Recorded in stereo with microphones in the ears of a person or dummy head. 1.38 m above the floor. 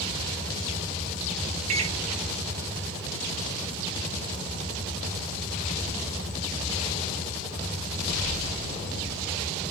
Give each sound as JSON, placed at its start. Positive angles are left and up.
{"t": 1.7, "sound": "a microwave", "side_deg": -40, "distance_m": 0.5}